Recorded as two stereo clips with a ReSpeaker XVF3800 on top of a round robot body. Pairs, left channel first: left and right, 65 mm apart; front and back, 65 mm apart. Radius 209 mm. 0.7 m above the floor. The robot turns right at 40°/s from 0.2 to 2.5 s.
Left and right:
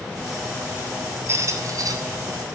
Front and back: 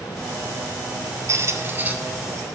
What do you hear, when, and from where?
1.3 s a squeak: 140° right, 1.4 m; by 1.9 s 110° right, 1.4 m